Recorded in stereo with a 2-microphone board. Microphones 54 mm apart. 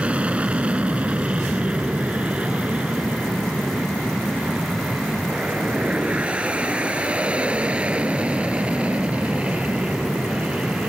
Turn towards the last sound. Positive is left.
turn(degrees=-20)  # may be behind; listen again after turning